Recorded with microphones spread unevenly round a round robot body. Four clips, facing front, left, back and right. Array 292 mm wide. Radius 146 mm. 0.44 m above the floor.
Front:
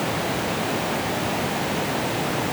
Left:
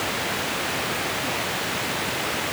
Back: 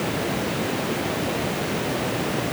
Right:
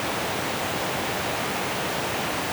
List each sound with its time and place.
Only background noise.